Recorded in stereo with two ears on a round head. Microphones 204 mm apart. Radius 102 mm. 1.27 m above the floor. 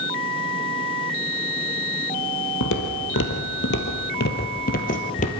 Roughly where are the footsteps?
Left.